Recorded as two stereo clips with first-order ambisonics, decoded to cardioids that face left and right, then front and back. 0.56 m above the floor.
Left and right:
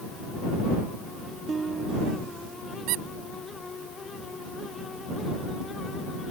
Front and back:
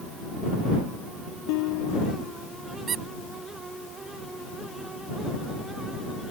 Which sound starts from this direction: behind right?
A squeak, at 2.9 s.